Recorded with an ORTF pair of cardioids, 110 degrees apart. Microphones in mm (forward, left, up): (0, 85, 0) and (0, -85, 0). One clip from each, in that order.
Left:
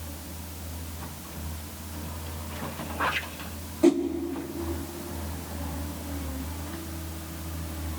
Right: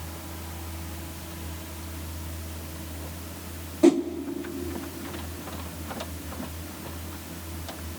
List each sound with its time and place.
3.8 s a whoosh: 15° right, 1.3 m